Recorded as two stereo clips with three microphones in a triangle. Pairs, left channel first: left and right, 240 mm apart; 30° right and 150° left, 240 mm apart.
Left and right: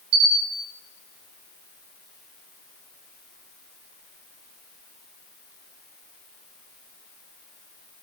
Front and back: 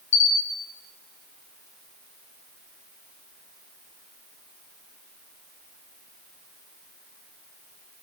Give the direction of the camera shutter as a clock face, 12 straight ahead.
2 o'clock.